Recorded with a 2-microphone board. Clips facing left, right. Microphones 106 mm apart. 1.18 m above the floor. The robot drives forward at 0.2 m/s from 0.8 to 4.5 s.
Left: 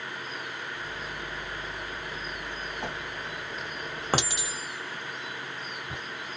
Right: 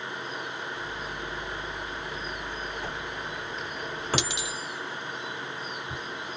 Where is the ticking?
No ticking in this recording.